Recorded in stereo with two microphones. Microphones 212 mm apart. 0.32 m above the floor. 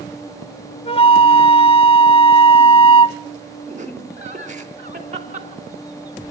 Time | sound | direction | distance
0.8 | a flute | 25° left (ahead or behind) | 0.6 m
3.7 | laughter | 35° right (ahead or behind) | 4 m